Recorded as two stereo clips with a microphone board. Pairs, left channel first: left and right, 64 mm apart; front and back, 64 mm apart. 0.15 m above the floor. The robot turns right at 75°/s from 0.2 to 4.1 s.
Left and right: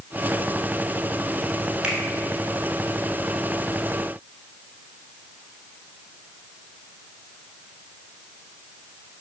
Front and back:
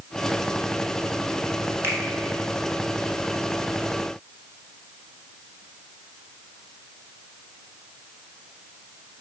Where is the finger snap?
160° right, 1.2 m; by 2.0 s 145° right, 1.2 m.